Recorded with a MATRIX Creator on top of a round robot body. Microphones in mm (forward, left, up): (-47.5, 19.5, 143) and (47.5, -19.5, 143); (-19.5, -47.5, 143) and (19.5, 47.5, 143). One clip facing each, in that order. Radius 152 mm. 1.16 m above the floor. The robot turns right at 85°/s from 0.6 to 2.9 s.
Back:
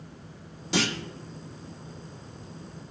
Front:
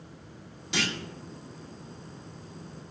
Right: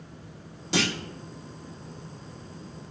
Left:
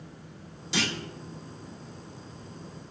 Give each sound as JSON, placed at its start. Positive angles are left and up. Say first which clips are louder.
{"t": 0.7, "sound": "a clunk", "louder": "back 5 dB, right 4 dB", "azimuth_deg": -150, "distance_m": 1.7}